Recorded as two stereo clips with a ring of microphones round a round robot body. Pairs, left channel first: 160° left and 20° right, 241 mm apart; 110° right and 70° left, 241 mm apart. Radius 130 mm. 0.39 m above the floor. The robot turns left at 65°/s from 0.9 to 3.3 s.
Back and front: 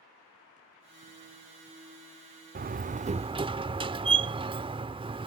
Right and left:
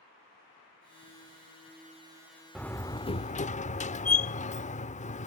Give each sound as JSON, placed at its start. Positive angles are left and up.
{"t": 2.5, "sound": "a door slam", "azimuth_deg": -25}